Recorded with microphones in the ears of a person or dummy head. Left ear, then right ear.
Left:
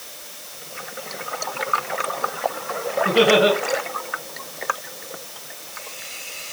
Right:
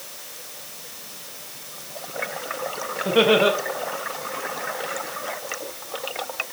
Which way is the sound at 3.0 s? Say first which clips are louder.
Left 1 dB; 10° right (ahead or behind).